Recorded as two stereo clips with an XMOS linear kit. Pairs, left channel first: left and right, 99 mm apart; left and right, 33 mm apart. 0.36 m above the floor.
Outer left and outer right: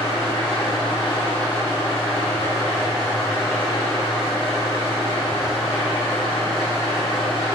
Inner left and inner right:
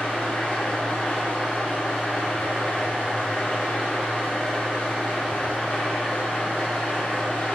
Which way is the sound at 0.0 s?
60° left (ahead or behind).